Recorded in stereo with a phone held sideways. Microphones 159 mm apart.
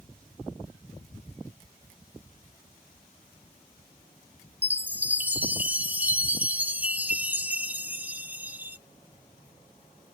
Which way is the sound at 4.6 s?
10° right (ahead or behind).